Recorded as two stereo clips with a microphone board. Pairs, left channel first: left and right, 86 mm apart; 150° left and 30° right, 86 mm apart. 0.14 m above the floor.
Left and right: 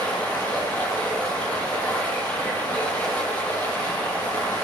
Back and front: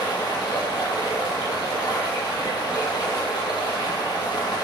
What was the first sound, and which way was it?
Running water, 155° left.